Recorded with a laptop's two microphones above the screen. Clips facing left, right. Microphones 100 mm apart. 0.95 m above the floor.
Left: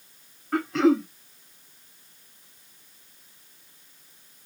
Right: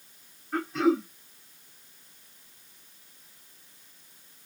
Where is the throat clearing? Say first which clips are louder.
Left 4 dB; 75° left (ahead or behind), 1.2 m.